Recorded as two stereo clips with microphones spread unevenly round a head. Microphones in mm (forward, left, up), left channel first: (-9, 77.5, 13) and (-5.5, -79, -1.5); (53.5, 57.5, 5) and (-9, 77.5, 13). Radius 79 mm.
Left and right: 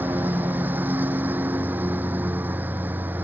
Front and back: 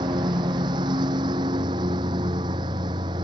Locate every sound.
0.0 s a lawn mower: 170° right